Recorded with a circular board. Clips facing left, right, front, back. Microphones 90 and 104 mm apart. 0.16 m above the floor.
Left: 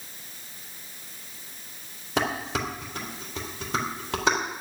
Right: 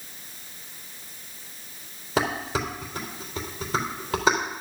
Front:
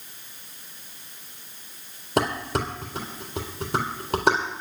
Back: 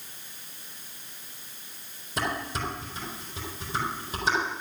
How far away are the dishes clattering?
About 3.5 m.